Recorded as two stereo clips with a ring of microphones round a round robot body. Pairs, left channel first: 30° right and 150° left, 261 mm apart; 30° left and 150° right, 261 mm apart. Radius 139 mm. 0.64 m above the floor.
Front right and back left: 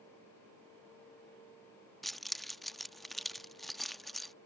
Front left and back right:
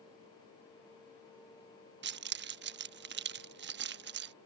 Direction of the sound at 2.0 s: 120° right.